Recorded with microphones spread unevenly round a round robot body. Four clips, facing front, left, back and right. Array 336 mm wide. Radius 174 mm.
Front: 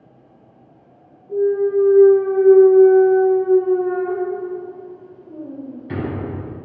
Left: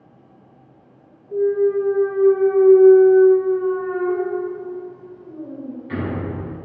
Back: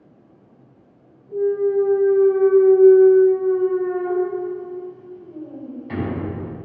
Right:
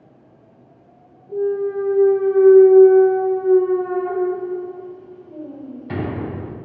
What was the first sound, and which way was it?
A clunk, 55° right.